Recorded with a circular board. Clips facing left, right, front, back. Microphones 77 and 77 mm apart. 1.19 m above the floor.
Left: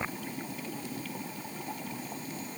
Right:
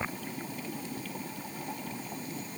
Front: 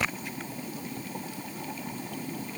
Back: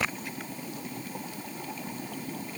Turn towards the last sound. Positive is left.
No sound to turn to.